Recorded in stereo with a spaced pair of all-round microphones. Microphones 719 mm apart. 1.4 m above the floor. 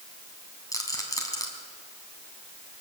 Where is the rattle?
5° left (ahead or behind), 3 m.